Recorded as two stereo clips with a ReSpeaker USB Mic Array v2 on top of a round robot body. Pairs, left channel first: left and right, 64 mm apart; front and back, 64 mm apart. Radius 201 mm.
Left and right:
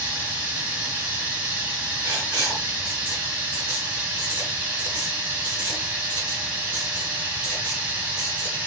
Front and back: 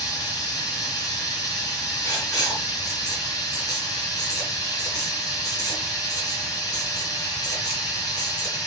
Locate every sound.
0.0 s running water: 25° right, 3.5 m
2.0 s writing: 40° right, 4.5 m